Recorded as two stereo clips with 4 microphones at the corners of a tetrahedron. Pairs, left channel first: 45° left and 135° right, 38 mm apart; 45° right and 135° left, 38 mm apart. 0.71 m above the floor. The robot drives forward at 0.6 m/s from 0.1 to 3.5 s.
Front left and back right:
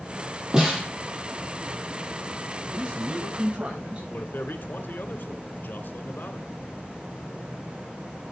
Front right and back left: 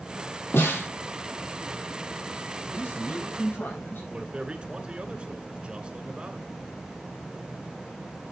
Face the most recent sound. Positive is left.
turn(degrees=75)